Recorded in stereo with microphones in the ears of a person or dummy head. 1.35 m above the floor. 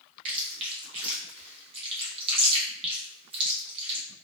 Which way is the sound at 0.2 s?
35° right (ahead or behind).